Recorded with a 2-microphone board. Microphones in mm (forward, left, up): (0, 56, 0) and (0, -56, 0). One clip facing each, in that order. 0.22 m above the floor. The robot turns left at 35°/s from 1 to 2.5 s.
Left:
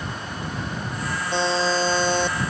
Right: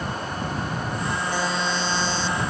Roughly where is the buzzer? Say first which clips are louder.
Left 7 dB; behind left.